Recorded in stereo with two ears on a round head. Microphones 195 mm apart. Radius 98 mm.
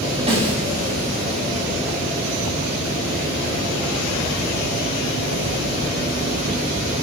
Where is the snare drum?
30° right (ahead or behind), 6 m.